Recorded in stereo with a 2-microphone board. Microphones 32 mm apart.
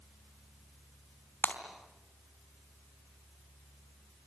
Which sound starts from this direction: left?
Breaking glass, at 1.4 s.